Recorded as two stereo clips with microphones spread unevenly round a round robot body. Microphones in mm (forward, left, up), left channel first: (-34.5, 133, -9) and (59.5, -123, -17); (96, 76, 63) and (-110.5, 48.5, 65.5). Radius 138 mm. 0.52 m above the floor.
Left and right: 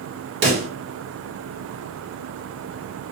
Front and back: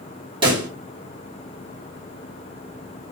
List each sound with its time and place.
0.4 s a pop: 110° right, 1.0 m